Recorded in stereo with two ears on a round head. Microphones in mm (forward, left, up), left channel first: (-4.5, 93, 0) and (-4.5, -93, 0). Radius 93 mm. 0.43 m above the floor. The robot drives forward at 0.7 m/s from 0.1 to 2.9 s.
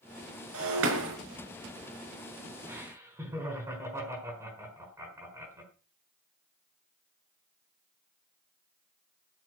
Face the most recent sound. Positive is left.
turn(degrees=-15)  # may be behind; listen again after turning